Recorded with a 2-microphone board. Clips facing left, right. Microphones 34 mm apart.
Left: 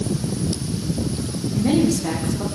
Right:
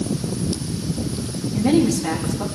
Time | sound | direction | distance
1.5 | a woman speaking | 10° right (ahead or behind) | 5 m